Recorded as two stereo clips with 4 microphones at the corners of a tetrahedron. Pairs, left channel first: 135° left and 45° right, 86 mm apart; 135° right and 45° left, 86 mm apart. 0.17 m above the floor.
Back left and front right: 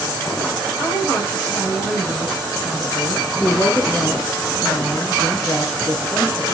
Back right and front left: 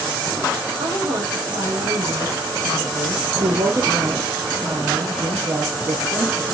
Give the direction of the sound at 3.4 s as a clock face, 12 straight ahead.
10 o'clock.